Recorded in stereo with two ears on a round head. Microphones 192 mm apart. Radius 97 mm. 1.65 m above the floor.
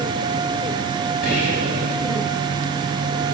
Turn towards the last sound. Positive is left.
turn(degrees=45)  # may be behind; listen again after turning